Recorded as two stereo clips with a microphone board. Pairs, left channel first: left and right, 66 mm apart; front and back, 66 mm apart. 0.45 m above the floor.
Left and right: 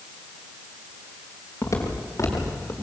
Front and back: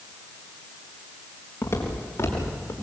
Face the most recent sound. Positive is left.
turn(degrees=45)